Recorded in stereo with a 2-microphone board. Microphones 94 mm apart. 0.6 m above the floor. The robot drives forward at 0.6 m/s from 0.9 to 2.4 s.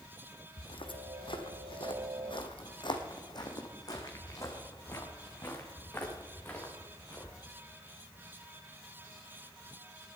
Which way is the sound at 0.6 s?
70° left (ahead or behind).